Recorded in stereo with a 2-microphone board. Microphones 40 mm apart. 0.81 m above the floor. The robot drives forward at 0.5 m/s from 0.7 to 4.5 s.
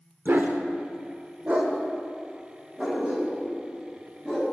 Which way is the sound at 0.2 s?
55° right (ahead or behind).